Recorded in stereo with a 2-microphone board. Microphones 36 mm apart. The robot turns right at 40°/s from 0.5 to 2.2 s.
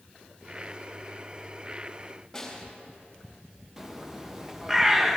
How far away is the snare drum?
About 3.5 m.